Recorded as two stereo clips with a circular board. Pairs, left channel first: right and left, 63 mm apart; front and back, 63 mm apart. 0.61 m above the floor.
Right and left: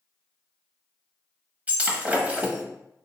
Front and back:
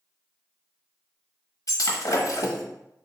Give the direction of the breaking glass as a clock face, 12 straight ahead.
11 o'clock.